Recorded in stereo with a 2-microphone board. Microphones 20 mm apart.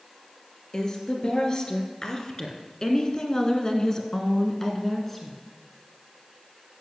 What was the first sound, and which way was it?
A woman speaking, 35° left (ahead or behind).